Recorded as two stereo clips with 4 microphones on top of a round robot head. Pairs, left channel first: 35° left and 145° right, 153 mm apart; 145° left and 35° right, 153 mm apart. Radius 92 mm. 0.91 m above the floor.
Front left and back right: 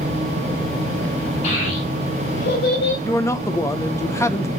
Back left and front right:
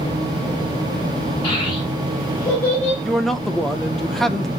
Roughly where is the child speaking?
Left.